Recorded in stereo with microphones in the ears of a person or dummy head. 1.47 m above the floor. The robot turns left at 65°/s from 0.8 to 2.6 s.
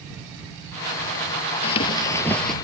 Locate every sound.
1.6 s running footsteps: 60° left; by 2.5 s straight ahead